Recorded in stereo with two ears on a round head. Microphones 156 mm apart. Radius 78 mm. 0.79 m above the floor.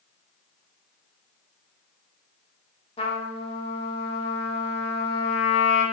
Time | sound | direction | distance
3.0 | a trumpet | 30° left (ahead or behind) | 0.6 m